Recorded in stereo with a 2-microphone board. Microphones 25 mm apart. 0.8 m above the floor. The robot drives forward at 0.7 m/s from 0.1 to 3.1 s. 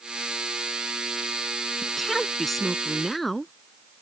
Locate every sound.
1.8 s a woman speaking: 5° left (ahead or behind)